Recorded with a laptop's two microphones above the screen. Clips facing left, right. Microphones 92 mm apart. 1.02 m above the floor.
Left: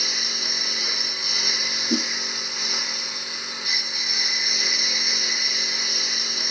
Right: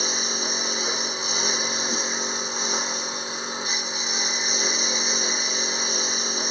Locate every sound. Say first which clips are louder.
0.0 s a lawn mower: right 5 dB; 30° right (ahead or behind)
1.9 s a whoosh: left 4 dB; 40° left (ahead or behind)